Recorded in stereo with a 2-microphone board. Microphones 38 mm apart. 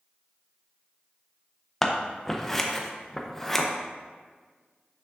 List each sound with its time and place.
1.8 s scissors: 10° left (ahead or behind), 0.6 m